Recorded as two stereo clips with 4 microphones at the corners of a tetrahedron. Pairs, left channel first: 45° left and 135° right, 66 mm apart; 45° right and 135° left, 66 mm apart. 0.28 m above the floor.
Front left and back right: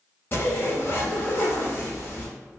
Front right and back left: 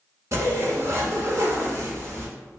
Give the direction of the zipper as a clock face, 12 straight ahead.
9 o'clock.